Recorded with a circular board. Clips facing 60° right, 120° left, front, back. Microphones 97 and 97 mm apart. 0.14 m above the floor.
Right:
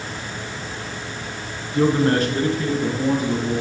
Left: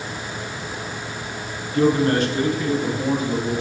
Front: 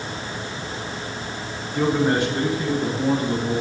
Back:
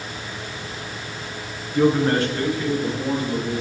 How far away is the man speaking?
About 1.5 m.